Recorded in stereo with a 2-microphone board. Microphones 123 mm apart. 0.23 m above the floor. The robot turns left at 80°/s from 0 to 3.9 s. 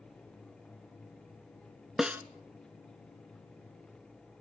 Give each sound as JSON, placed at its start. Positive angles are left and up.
{"t": 2.0, "sound": "a snare drum", "side_deg": 0, "distance_m": 0.7}